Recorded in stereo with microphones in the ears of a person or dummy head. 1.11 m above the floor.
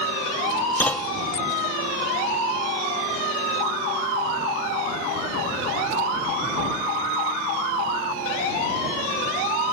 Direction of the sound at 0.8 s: 5° left (ahead or behind).